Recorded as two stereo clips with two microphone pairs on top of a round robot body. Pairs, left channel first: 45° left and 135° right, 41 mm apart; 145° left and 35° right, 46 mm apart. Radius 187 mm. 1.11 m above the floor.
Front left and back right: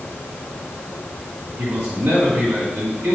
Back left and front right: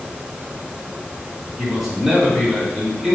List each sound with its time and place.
1.6 s a man speaking: 120° right, 3.5 m